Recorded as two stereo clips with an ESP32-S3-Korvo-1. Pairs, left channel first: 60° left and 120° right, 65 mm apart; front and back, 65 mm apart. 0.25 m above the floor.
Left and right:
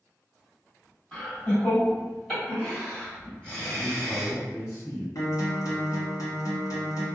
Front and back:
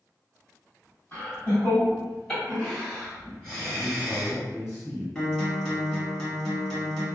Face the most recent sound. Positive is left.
turn(degrees=80)